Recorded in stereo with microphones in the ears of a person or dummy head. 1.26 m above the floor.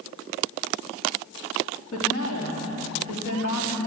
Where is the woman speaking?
70° left (ahead or behind), 3 m.